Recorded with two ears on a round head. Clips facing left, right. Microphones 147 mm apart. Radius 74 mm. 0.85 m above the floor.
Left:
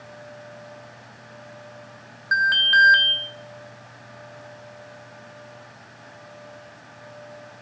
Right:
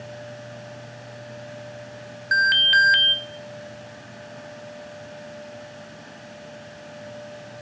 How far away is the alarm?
About 1.0 m.